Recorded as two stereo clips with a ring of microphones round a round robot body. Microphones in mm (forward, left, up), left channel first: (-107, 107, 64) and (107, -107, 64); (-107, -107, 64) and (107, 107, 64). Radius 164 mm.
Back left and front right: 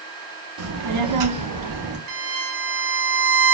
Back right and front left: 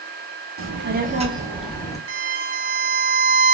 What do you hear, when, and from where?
0.6 s a child speaking: straight ahead, 1.0 m; by 2.0 s 55° right, 1.0 m
2.1 s a violin: 5° right, 0.9 m